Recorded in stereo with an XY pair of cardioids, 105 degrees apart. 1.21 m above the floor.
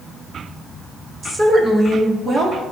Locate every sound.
1.2 s a woman speaking: 25° right, 1.4 m; by 2.6 s 35° right, 2.5 m